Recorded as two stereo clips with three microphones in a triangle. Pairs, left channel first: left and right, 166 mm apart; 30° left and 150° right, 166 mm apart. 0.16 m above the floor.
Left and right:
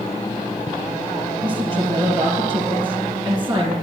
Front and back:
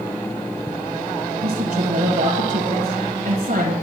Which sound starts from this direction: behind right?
A woman speaking, at 1.4 s.